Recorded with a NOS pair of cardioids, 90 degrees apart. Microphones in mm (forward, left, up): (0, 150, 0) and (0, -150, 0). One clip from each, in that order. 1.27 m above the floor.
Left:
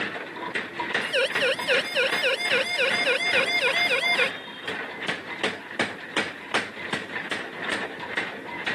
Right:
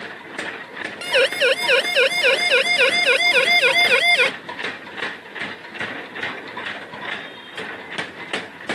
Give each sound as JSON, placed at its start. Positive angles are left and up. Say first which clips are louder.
{"t": 1.0, "sound": "a siren", "louder": "right 8 dB", "azimuth_deg": -50}